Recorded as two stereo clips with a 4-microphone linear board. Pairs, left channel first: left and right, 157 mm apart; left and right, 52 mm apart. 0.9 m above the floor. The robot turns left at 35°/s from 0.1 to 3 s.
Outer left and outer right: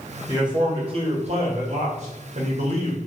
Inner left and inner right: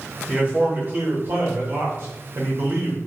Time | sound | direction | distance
0.3 | a man speaking | 30° right | 1.2 m